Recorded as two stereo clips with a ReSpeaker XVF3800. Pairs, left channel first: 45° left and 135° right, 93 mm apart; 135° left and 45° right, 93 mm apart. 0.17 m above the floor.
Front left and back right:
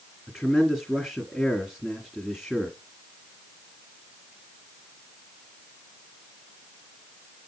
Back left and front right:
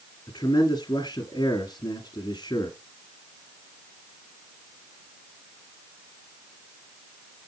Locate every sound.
0.3 s a man speaking: 135° left, 2.0 m